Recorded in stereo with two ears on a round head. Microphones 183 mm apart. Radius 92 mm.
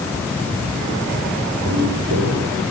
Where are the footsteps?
70° right (ahead or behind), 8.5 m.